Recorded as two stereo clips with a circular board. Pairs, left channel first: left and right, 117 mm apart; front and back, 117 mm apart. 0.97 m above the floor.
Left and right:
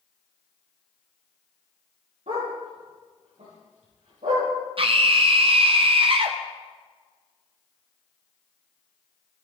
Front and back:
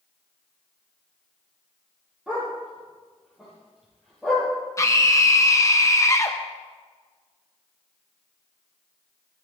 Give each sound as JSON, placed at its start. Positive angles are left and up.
{"t": 2.3, "sound": "a dog barking", "azimuth_deg": -95, "distance_m": 9.0}
{"t": 4.8, "sound": "a scream", "azimuth_deg": -60, "distance_m": 0.8}